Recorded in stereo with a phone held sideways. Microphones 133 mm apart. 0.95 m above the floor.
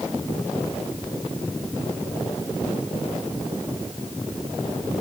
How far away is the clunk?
I don't hear a clunk.